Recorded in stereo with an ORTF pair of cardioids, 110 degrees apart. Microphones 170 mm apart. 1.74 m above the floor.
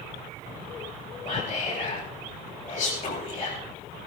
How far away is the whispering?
About 6.5 m.